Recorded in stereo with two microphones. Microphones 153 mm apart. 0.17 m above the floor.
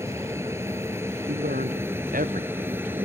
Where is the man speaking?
65° right (ahead or behind).